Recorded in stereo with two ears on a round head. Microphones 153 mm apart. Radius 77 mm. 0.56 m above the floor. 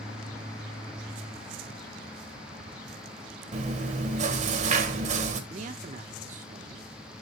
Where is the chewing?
45° right (ahead or behind), 1.5 m.